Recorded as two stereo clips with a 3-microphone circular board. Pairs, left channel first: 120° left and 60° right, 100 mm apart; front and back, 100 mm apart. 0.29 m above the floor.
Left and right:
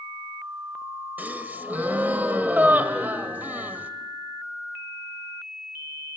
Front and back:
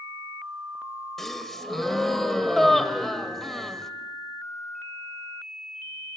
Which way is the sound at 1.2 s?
80° right.